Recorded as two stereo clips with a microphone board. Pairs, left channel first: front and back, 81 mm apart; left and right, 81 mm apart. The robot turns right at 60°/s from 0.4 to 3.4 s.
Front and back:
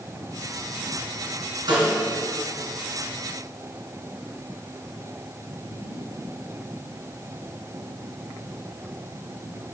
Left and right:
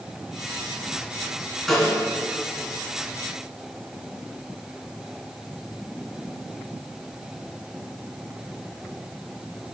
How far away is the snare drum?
About 2 m.